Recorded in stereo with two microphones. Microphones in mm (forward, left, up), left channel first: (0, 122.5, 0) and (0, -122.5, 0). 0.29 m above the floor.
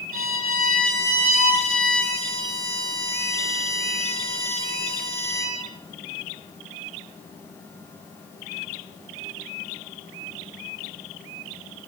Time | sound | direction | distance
0.1 | a violin | 60° left (ahead or behind) | 7.5 m